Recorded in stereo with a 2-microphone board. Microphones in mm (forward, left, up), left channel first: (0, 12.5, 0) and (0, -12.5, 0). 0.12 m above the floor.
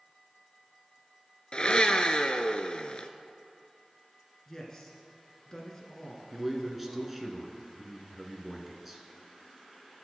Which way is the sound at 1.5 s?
40° left (ahead or behind).